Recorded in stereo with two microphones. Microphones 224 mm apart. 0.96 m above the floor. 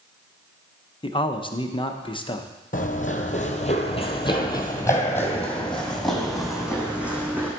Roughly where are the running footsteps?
Left.